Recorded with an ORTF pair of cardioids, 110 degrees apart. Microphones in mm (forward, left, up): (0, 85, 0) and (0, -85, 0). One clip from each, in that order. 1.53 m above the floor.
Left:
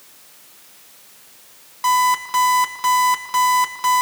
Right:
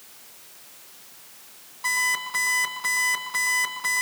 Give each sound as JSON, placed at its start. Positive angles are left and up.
{"t": 1.8, "sound": "an alarm clock", "azimuth_deg": 50, "distance_m": 6.5}